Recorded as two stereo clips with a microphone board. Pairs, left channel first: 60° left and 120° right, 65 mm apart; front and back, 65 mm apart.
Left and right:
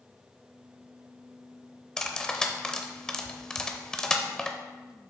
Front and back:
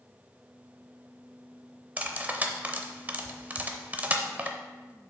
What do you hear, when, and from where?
2.0 s cutlery clinking: 135° left, 0.7 m